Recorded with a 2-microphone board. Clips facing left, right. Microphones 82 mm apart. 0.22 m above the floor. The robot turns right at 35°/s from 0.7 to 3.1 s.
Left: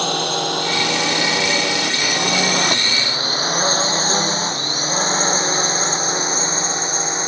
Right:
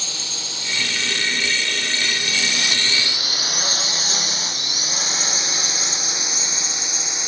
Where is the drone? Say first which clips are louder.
Left 16 dB; 60° left (ahead or behind); by 7.3 s 40° left (ahead or behind).